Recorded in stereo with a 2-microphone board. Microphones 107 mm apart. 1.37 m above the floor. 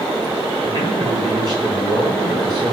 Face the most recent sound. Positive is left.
turn(degrees=-45)  # may be behind; listen again after turning